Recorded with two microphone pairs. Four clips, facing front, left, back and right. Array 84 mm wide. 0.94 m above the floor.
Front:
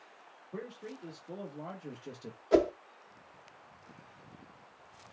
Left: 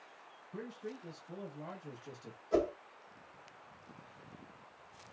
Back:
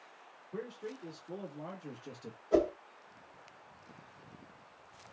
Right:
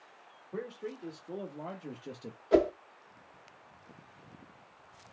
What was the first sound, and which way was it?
A man speaking, 80° right.